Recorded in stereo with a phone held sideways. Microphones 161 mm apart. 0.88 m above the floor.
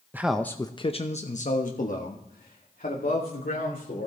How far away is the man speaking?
About 0.5 m.